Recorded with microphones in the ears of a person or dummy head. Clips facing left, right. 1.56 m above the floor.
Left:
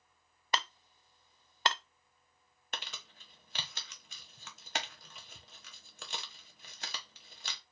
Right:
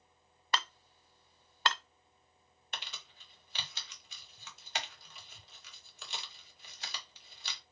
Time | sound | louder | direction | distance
0.5 | hammering | even | 20° left (ahead or behind) | 0.6 m
2.7 | crumpling | left 2 dB | 40° left (ahead or behind) | 1.4 m